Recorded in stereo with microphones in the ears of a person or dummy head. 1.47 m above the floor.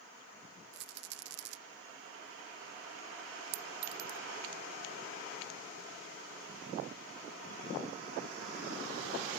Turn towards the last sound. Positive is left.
turn(degrees=-80)